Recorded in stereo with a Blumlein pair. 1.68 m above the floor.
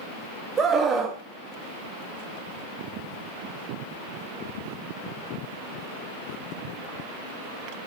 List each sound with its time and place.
0.6 s a scream: 20° right, 0.7 m